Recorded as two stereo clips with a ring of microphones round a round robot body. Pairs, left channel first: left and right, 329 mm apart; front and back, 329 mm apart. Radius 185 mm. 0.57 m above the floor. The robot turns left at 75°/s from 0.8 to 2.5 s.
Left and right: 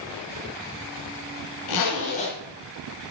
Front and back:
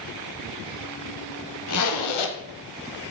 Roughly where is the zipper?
Ahead left.